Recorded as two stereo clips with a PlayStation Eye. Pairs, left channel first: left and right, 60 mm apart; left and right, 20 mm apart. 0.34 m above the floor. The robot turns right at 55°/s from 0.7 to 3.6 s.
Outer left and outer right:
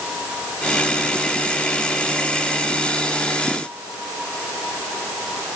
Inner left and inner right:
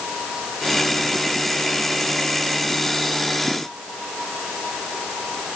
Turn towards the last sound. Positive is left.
No sound to turn to.